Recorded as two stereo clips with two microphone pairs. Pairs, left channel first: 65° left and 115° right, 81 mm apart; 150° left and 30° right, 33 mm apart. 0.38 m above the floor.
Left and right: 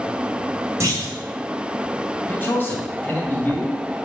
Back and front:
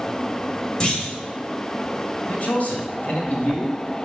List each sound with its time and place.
0.8 s a clunk: 155° right, 2 m
2.2 s a man speaking: 125° left, 2.5 m